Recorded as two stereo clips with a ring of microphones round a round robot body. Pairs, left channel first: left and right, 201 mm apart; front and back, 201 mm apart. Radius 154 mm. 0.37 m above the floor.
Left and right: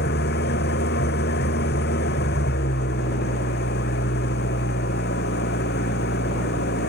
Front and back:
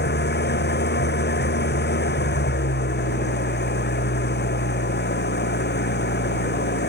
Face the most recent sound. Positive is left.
turn(degrees=35)